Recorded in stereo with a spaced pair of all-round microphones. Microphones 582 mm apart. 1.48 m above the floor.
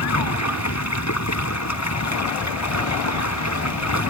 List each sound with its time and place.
0.0 s running water: 25° left (ahead or behind)